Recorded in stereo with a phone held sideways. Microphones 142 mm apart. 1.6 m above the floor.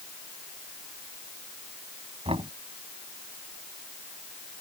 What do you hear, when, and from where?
2.2 s knocking: 40° right (ahead or behind)